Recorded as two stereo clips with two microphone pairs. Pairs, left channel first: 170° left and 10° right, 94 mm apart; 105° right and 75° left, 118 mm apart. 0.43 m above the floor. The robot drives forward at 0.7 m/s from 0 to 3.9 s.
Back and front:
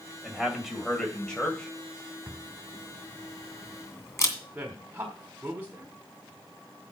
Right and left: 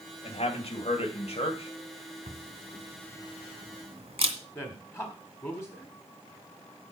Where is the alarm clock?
No alarm clock in this recording.